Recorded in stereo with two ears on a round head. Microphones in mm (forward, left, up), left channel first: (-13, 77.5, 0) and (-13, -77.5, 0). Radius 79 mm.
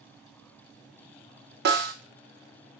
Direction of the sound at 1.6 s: 60° right (ahead or behind).